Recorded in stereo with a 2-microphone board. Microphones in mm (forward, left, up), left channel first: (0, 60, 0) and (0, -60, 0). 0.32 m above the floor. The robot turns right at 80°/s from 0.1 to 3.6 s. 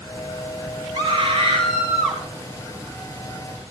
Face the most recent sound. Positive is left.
turn(degrees=120)